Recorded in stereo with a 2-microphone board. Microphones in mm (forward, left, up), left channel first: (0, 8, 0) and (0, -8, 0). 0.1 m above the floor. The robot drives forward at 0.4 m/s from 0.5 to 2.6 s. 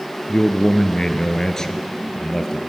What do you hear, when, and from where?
0.3 s a man speaking: 30° left (ahead or behind), 1.3 m; by 2.6 s 25° left (ahead or behind), 1.5 m